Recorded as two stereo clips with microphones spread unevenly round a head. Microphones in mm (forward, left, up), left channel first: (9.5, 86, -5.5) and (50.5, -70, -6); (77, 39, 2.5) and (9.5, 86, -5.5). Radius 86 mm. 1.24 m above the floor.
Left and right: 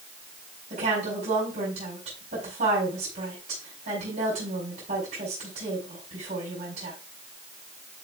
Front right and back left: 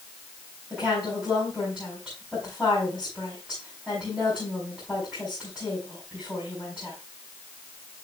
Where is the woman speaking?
125° right, 5 m.